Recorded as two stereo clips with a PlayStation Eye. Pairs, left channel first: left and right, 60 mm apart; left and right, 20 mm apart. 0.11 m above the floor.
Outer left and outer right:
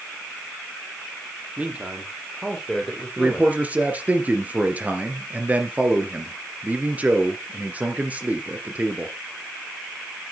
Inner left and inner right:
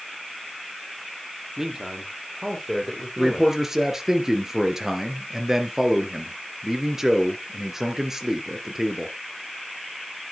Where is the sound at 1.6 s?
25° right (ahead or behind), 4 m; by 3.5 s 10° left (ahead or behind), 4 m.